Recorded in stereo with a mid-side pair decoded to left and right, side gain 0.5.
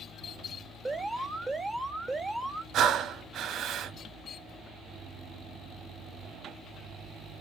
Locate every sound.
0.8 s an alarm: 5° left, 1.5 m
2.7 s breathing: 60° right, 0.7 m